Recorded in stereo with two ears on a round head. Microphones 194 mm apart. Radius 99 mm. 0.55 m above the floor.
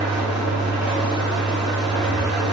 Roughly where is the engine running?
Centre.